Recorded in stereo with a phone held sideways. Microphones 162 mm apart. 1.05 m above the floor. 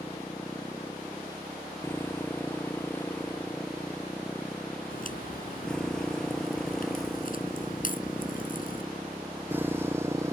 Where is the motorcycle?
20° left (ahead or behind); by 10.3 s 20° right (ahead or behind).